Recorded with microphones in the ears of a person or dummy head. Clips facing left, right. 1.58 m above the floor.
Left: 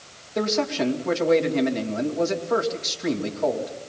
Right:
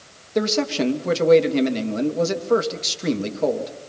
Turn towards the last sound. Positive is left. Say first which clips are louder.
# right 2 dB
turn(degrees=-50)  # may be behind; listen again after turning